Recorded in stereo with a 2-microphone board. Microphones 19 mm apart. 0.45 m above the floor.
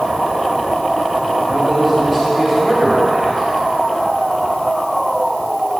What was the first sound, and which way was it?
A man speaking, 15° left (ahead or behind).